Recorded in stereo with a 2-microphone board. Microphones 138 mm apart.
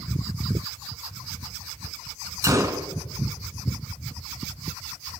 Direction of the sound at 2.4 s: 25° right (ahead or behind).